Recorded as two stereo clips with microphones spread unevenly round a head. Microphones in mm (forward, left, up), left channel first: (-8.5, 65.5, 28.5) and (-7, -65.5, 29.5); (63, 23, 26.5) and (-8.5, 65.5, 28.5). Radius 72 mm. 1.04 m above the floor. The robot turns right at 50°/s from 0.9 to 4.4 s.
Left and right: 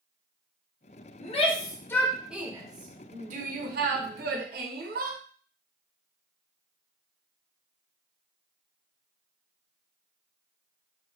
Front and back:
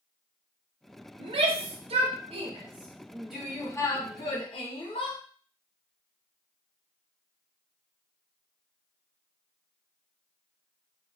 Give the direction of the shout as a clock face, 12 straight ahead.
8 o'clock.